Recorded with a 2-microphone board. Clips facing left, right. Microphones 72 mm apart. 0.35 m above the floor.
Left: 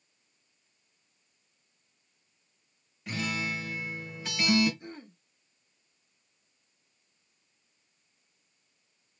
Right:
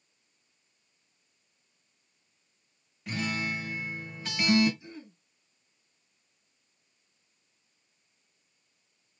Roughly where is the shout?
No shout in this recording.